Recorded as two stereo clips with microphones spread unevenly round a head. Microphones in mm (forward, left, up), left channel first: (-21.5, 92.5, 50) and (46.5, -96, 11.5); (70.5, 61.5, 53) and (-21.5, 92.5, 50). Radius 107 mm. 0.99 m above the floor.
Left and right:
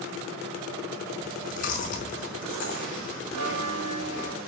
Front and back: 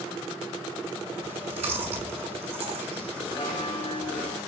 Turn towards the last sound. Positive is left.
turn(degrees=-80)